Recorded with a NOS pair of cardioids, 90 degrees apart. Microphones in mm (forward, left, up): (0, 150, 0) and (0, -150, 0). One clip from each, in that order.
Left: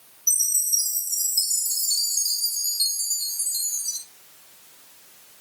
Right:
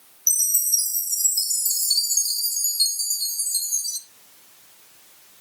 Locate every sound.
0.3 s a chime: 60° right, 1.6 m